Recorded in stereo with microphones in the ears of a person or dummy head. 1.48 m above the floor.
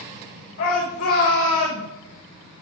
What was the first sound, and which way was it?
A shout, 60° left (ahead or behind).